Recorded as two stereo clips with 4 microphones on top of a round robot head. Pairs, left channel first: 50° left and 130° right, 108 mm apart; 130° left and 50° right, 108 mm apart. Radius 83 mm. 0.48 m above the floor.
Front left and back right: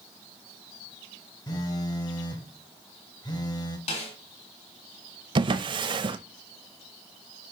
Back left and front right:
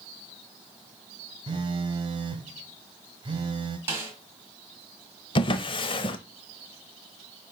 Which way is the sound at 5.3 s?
Straight behind.